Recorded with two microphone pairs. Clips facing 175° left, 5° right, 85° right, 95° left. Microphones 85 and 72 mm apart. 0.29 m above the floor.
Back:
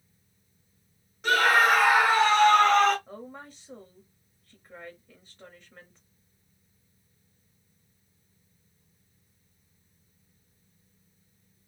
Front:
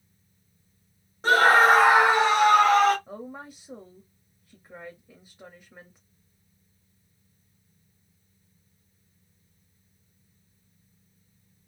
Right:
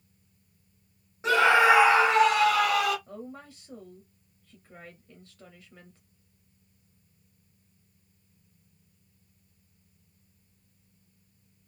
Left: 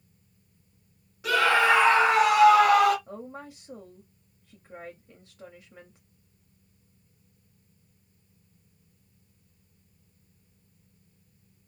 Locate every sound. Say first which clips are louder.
1.2 s a scream: front 4 dB, right 2 dB; 40° right, 1.3 m; by 3.0 s 75° left, 1.2 m
3.1 s a woman speaking: front 3 dB, left 2 dB; 50° left, 1.0 m